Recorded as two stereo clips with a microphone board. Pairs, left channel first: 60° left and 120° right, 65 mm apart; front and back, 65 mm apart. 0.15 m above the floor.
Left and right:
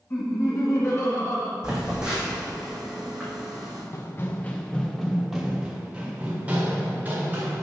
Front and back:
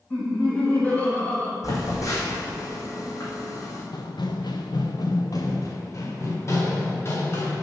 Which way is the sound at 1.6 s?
40° right.